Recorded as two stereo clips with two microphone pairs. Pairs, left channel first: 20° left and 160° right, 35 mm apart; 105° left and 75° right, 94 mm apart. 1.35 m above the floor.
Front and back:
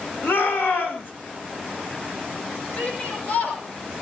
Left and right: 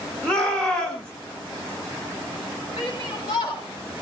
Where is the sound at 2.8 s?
60° left, 7 m.